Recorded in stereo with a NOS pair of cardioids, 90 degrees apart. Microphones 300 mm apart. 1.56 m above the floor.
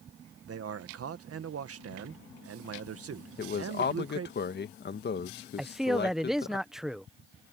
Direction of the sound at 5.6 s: Straight ahead.